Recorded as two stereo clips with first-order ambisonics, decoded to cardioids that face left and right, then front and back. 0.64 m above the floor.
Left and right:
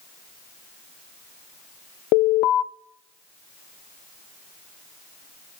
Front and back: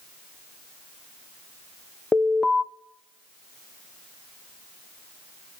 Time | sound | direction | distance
2.1 | an alarm | 80° left | 0.6 m